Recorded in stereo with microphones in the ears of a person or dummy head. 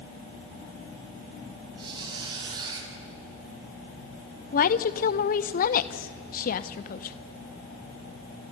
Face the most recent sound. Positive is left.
turn(degrees=50)  # may be behind; listen again after turning